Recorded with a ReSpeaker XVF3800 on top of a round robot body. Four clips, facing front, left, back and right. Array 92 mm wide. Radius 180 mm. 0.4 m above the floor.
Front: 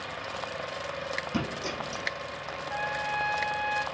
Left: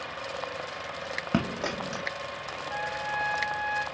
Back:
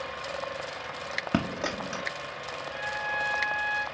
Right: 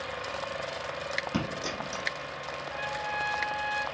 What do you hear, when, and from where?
1.3 s a dropped coin: 140° left, 0.5 m
2.7 s a trumpet: 25° left, 1.5 m